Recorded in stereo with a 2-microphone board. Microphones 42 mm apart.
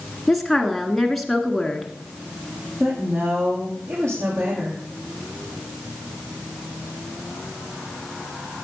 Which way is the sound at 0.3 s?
Centre (ahead or behind).